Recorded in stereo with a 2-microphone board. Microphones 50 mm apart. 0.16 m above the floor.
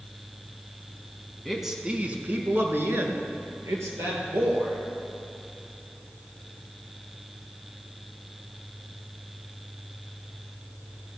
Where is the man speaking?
Centre (ahead or behind), 1.1 m; by 4.8 s 75° right (ahead or behind), 3.5 m.